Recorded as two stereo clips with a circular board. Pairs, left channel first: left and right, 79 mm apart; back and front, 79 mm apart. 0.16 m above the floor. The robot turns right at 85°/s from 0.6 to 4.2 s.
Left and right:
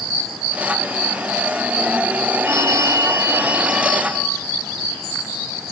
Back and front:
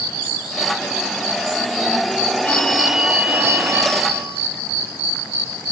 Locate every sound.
2.4 s a phone ringing: 125° right, 1.1 m; by 4.4 s 25° left, 1.1 m